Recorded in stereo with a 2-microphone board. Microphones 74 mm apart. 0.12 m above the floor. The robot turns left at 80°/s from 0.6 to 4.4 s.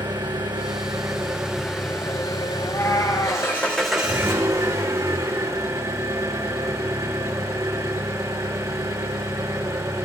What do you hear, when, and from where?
0.0 s an engine running: 100° right, 2.5 m; by 10.1 s 45° right, 2.5 m
2.6 s a cat meowing: 155° left, 1.4 m; by 3.5 s 80° left, 1.4 m